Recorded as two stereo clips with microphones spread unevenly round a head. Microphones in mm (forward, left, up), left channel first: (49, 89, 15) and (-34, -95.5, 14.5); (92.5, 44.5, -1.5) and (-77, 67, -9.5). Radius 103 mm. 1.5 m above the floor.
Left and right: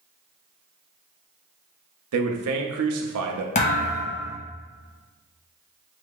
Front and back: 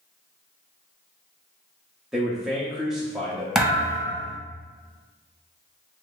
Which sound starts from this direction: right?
A man speaking, at 2.1 s.